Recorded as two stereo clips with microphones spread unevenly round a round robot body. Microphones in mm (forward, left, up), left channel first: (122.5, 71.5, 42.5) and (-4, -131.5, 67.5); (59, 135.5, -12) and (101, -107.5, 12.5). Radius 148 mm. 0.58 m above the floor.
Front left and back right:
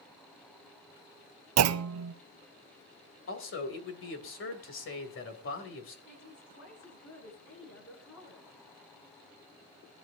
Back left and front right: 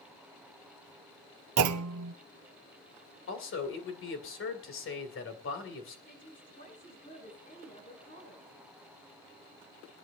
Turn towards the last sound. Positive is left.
turn(degrees=45)